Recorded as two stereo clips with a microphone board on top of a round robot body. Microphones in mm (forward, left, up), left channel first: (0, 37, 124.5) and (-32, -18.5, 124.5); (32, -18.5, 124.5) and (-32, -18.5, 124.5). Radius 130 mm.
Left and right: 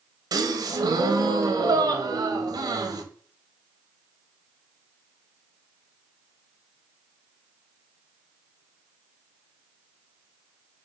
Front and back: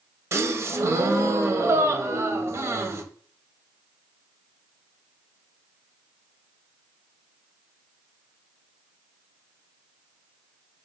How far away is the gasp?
About 0.8 m.